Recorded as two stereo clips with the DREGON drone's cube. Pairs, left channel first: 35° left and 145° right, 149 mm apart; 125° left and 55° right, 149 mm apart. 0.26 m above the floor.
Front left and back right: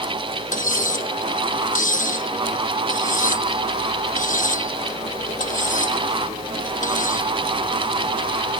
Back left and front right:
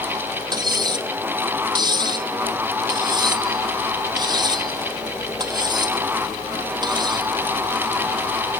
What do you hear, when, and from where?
0.5 s cutlery clinking: 5° left